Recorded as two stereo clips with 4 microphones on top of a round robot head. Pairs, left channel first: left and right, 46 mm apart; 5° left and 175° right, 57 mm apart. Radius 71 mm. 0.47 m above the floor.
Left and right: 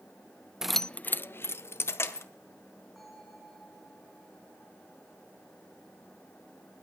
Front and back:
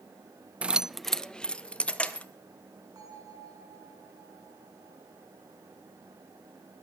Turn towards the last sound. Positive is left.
turn(degrees=180)